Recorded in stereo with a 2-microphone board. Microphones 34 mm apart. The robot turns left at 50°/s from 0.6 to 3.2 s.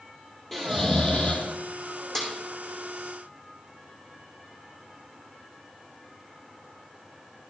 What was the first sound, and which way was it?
Snoring, 170° left.